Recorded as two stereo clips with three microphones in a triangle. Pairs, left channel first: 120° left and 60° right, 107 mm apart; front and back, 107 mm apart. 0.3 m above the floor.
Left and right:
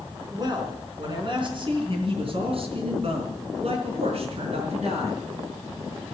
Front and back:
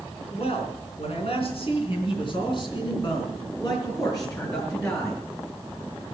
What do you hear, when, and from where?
0.3 s a man speaking: 10° right, 4 m; by 5.2 s 60° right, 4.5 m